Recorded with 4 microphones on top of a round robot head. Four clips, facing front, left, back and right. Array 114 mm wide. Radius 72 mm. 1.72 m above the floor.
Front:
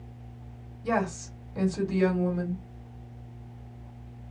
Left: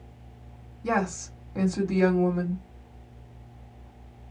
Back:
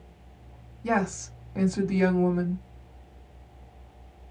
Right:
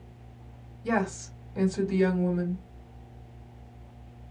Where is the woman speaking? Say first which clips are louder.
Left 1 dB, back 1 dB; 135° left, 1.5 m.